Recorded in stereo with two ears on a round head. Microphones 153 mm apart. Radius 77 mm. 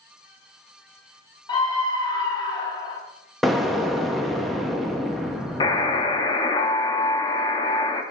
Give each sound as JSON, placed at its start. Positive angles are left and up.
{"t": 1.5, "sound": "a scream", "side_deg": 25, "distance_m": 1.5}
{"t": 3.4, "sound": "an explosion", "side_deg": 0, "distance_m": 0.7}
{"t": 5.6, "sound": "a buzzer", "side_deg": 25, "distance_m": 0.8}